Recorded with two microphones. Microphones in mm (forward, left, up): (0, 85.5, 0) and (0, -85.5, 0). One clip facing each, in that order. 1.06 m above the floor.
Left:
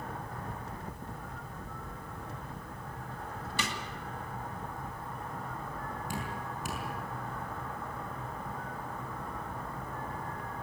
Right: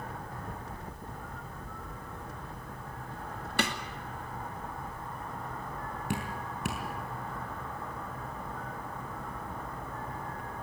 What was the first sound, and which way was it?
A snare drum, 60° right (ahead or behind).